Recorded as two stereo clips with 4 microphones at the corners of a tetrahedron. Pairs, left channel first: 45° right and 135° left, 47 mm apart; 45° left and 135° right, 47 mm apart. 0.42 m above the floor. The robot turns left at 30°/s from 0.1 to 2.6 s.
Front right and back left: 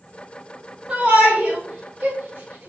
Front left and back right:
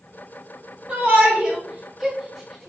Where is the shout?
170° right, 1.3 m; by 2.7 s 135° left, 1.3 m.